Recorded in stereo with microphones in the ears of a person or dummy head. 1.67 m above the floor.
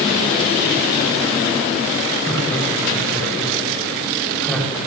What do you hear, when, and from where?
2.3 s laughter: 15° left (ahead or behind), 9.5 m; by 4.8 s 5° left (ahead or behind), 10 m